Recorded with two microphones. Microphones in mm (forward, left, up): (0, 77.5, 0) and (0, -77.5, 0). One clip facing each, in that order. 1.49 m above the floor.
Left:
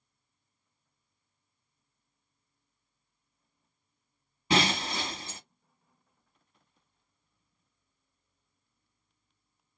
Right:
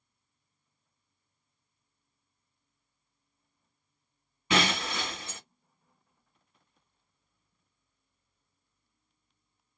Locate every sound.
4.5 s breaking glass: 35° left (ahead or behind), 2 m